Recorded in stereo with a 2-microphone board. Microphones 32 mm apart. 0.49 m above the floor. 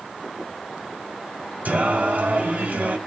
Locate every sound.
1.6 s singing: 60° right (ahead or behind), 2.0 m